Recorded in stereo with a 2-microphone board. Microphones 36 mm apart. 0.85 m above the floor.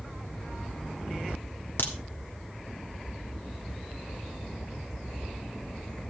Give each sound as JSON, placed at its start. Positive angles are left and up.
{"t": 1.8, "sound": "a crack", "side_deg": 70, "distance_m": 1.5}